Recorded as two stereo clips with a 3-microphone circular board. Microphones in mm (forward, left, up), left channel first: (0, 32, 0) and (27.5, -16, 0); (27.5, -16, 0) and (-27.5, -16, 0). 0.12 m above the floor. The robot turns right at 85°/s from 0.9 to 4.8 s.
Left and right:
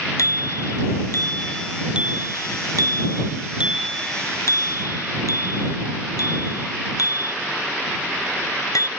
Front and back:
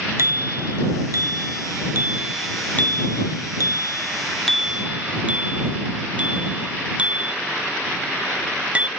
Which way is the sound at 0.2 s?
140° left.